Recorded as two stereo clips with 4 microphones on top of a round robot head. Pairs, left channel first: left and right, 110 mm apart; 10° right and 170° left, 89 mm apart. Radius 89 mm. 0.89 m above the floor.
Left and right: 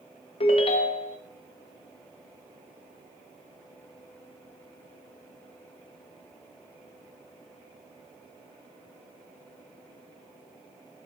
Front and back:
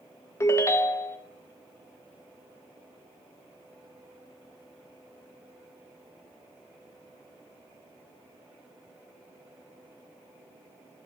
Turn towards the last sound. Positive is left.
turn(degrees=50)